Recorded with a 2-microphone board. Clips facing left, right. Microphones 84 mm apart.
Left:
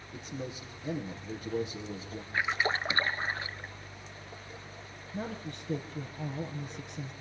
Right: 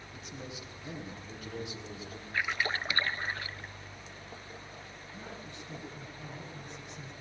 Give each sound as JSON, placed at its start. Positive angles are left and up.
{"t": 0.1, "sound": "a man speaking", "side_deg": 35, "distance_m": 8.0}
{"t": 2.3, "sound": "a splash", "side_deg": 25, "distance_m": 0.8}
{"t": 5.1, "sound": "a woman speaking", "side_deg": 55, "distance_m": 5.5}